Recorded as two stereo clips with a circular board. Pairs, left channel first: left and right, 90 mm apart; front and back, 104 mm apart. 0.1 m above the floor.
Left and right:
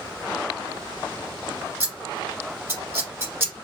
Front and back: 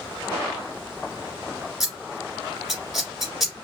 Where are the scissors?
95° right, 1.6 m.